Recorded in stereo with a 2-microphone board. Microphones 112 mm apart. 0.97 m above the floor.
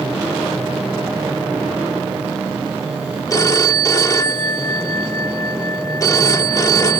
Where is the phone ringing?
30° left (ahead or behind).